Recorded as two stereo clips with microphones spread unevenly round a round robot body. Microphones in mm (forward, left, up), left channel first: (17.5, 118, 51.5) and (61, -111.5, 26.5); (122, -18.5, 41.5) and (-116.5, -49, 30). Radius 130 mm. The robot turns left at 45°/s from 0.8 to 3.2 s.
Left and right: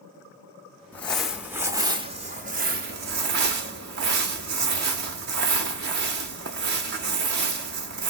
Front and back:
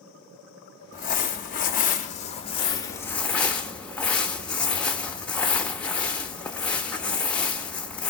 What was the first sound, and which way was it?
Crumpling, 35° left.